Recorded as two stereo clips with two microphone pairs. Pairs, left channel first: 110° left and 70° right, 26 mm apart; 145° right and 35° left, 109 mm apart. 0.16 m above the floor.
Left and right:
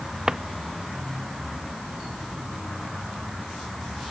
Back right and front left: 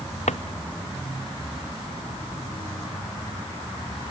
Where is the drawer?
135° right.